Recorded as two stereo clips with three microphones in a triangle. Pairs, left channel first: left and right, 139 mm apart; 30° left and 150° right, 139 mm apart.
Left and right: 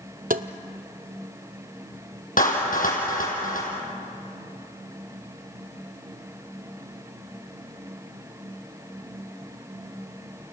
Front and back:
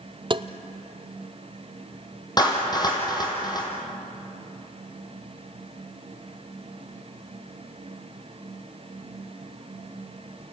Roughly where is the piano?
I don't hear a piano.